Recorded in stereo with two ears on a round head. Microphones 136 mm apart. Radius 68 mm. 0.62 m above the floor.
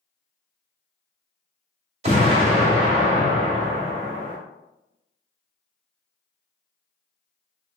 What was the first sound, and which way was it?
An explosion, 45° right (ahead or behind).